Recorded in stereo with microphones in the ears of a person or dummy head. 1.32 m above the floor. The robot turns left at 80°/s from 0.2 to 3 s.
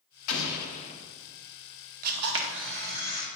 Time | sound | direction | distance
0.3 | an explosion | 90° left | 1.0 m
2.0 | a camera shutter | 45° right | 1.0 m